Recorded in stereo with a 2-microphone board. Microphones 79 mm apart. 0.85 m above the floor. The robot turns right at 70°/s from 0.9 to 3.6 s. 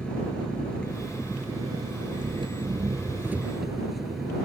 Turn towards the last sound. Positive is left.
turn(degrees=0)